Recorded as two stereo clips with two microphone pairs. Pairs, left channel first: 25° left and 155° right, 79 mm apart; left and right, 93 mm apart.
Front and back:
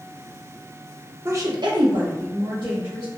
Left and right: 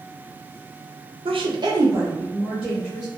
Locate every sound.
1.2 s a woman speaking: 95° right, 0.6 m; by 3.1 s 170° right, 1.8 m